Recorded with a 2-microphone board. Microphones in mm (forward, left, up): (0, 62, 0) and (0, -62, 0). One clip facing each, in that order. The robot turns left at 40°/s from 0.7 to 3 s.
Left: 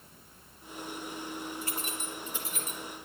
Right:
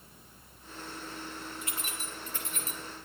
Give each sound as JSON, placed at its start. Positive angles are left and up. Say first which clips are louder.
{"t": 1.6, "sound": "keys jangling", "louder": "left 3 dB", "side_deg": 35, "distance_m": 2.5}